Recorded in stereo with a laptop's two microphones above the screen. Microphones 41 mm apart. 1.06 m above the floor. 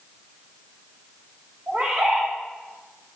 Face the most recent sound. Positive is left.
turn(degrees=-45)  # may be behind; listen again after turning